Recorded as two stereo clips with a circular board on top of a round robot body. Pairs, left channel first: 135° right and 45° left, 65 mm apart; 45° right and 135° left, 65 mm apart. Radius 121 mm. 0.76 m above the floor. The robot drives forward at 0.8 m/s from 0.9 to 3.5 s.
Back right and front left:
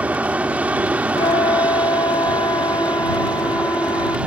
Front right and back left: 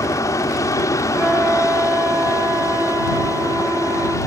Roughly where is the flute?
Behind right.